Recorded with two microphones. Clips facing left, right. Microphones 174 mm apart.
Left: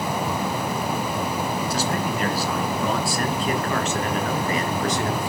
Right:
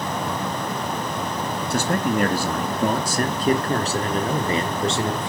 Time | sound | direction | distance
1.7 | a man speaking | 55° right (ahead or behind) | 1.9 m